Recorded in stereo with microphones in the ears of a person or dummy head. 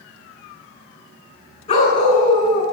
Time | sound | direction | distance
1.7 | a dog barking | 35° left (ahead or behind) | 8 m